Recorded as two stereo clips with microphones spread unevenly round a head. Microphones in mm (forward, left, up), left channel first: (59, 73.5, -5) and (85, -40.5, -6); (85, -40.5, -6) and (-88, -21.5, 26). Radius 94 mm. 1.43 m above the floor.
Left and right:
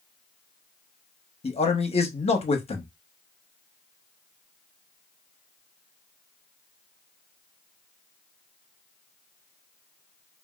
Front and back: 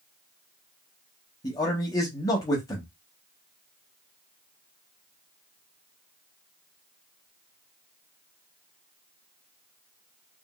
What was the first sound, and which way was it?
A man speaking, 70° left.